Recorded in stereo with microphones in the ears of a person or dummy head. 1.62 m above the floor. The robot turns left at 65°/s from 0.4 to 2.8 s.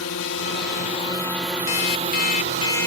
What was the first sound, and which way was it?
A drone, 70° left.